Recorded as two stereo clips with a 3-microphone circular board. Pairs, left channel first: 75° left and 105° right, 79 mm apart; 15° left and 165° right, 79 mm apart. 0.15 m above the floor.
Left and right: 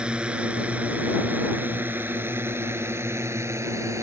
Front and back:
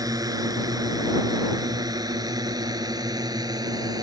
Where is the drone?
Straight behind; by 4.0 s 150° right.